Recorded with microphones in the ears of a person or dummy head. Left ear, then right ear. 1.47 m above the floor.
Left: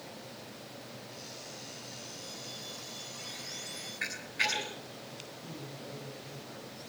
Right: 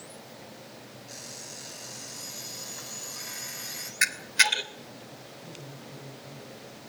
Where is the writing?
I don't hear writing.